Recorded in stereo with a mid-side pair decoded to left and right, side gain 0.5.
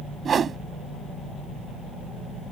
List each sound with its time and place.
0.2 s a whoosh: 45° right